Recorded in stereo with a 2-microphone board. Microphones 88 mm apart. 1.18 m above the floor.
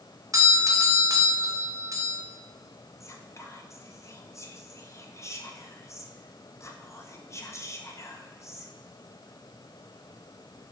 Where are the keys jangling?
I don't hear keys jangling.